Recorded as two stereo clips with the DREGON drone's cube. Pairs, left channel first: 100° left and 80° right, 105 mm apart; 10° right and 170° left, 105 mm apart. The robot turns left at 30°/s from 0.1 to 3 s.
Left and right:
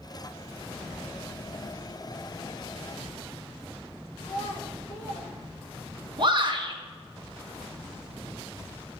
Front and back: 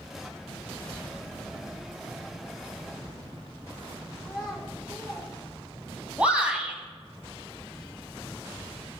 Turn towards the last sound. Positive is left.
turn(degrees=-115)